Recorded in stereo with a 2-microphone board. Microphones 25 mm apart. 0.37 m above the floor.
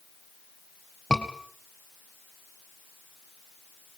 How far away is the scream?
About 2.5 m.